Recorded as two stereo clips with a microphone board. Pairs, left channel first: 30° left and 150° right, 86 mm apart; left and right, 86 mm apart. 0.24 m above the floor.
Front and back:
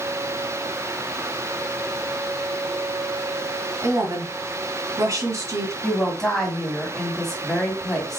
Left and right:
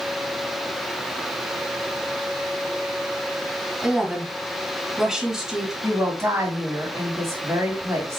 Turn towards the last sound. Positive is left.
turn(degrees=-50)